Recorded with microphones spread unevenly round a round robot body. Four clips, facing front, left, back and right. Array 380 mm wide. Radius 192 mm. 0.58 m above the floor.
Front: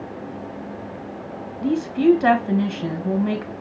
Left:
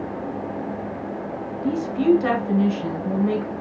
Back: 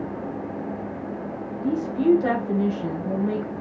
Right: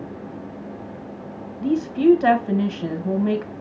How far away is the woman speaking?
About 3.5 m.